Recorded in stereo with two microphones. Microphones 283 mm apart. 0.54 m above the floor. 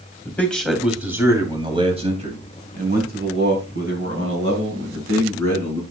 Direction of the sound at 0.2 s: 5° left (ahead or behind).